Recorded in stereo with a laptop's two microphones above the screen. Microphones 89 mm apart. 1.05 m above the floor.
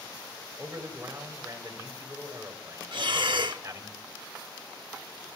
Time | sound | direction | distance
0.6 | a man speaking | 30° right (ahead or behind) | 5.5 m
2.9 | breathing | 65° right (ahead or behind) | 0.9 m